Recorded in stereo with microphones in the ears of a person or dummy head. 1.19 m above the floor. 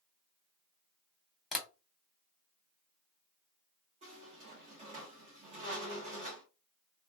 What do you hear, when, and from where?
1.5 s tapping: 5° left (ahead or behind), 1.2 m
4.0 s a squeak: 35° right (ahead or behind), 0.8 m